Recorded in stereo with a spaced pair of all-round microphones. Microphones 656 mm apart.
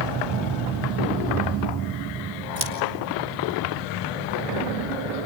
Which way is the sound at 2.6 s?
50° right (ahead or behind).